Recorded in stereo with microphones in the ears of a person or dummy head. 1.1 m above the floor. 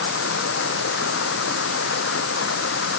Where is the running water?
75° left (ahead or behind).